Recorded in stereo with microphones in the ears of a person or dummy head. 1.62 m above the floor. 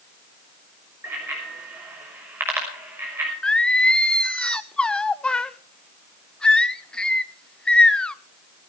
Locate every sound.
1.0 s a bicycle bell: 20° right (ahead or behind), 5.5 m
3.4 s singing: centre (ahead or behind), 0.5 m